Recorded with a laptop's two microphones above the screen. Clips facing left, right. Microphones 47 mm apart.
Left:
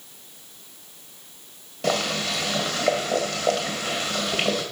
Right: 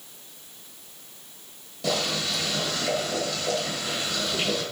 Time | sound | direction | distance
1.8 | boiling | 55° left (ahead or behind) | 2.5 m